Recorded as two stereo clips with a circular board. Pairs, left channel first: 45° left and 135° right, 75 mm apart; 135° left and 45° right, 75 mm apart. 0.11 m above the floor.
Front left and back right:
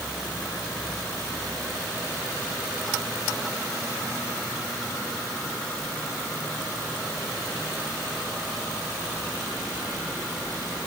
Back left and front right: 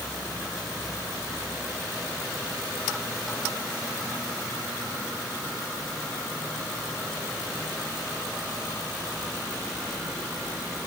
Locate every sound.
Only background noise.